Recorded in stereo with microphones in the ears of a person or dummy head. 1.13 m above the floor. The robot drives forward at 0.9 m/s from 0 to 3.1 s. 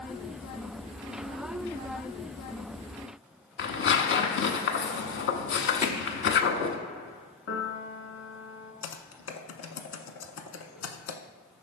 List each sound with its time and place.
3.6 s tearing paper: 55° left (ahead or behind), 0.7 m
5.8 s hammering: 20° left (ahead or behind), 0.7 m
7.5 s a piano: 60° left (ahead or behind), 1.2 m
8.8 s typing on a keyboard: 70° left (ahead or behind), 0.7 m